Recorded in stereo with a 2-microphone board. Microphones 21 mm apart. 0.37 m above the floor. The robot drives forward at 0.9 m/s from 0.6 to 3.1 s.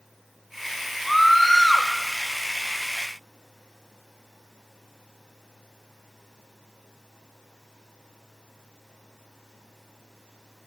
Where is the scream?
5° left (ahead or behind), 1.5 m; by 1.9 s 10° left (ahead or behind), 0.9 m.